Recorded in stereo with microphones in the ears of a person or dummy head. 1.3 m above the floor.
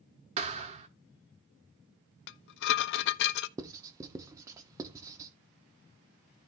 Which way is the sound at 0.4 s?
40° right (ahead or behind).